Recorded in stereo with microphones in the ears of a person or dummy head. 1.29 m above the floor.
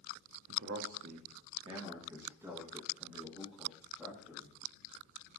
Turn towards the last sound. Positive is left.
turn(degrees=0)  # may be behind; listen again after turning